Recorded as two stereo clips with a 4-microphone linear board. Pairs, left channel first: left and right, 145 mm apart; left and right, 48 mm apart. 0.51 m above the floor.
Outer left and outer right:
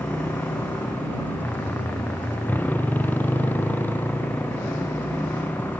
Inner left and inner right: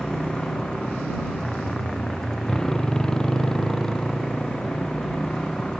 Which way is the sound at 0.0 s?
10° left (ahead or behind).